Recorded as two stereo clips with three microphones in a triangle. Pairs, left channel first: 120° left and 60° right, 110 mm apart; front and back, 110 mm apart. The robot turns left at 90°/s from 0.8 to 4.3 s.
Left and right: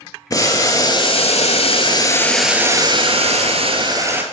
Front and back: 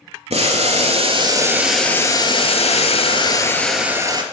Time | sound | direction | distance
0.3 | boiling | 175° left | 0.9 m